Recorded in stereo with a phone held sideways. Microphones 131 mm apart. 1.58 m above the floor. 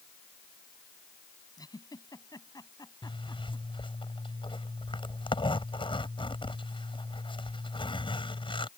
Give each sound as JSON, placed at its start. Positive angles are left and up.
{"t": 1.6, "sound": "a giggle", "side_deg": 30}
{"t": 3.0, "sound": "a zipper", "side_deg": 40}